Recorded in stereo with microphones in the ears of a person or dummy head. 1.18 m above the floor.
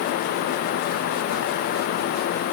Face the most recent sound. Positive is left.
No sound to turn to.